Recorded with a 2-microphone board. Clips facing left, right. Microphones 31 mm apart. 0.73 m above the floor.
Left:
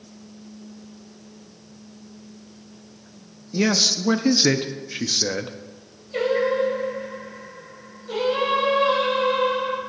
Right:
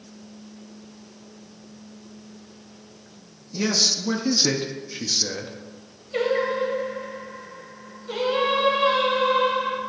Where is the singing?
15° right (ahead or behind), 3 m.